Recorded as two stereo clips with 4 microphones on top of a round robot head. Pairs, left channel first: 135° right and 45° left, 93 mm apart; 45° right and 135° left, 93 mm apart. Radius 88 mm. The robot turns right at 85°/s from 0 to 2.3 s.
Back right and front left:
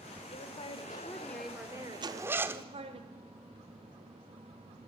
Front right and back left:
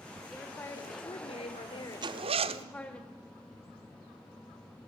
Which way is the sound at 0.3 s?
140° right.